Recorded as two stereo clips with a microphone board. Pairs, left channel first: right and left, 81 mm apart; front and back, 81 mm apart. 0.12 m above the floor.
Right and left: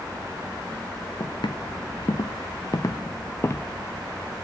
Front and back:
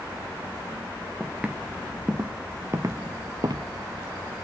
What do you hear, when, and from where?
1.2 s footsteps: 100° right, 1.7 m; by 3.7 s 150° right, 1.2 m